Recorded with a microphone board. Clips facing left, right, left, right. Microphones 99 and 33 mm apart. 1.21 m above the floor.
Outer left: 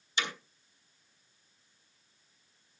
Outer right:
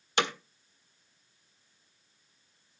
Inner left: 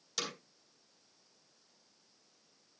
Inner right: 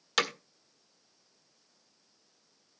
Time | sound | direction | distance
0.2 | hammering | 65° right (ahead or behind) | 1.4 m